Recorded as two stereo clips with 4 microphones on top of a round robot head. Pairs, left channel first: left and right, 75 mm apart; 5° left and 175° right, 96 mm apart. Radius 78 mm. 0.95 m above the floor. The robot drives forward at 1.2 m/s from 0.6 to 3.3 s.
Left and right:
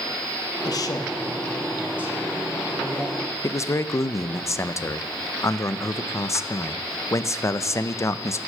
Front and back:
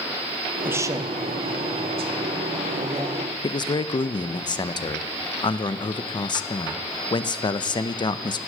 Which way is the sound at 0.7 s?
115° left.